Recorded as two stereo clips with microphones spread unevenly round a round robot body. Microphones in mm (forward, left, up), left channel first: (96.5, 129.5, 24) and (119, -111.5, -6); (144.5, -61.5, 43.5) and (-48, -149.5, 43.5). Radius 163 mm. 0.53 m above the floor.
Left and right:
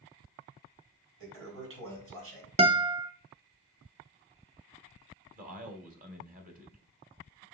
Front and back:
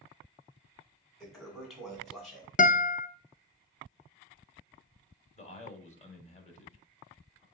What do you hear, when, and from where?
1.2 s a toilet flushing: 65° right, 3.5 m
2.6 s a guitar: 25° right, 0.9 m
5.3 s a man speaking: 30° right, 2.5 m